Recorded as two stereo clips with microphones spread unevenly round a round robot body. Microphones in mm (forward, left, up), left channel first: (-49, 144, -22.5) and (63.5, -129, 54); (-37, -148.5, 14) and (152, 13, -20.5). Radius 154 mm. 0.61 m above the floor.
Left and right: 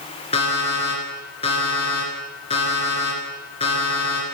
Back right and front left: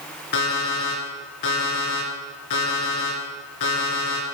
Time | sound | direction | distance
0.3 | an alarm clock | 175° right | 3.5 m